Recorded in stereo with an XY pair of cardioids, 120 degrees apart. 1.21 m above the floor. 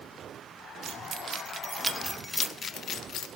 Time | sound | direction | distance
0.8 | keys jangling | 55° right | 1.3 m